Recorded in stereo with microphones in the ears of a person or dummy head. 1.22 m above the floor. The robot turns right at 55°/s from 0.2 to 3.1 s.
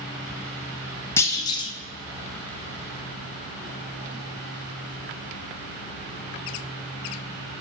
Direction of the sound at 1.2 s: 30° left.